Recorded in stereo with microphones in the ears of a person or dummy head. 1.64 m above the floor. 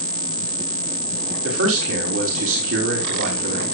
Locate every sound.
1.4 s a man speaking: 75° right (ahead or behind), 4 m